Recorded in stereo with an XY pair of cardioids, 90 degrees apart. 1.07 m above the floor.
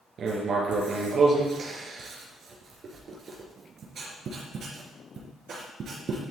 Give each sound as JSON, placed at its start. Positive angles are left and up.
{"t": 0.2, "sound": "writing", "azimuth_deg": -60, "distance_m": 3.5}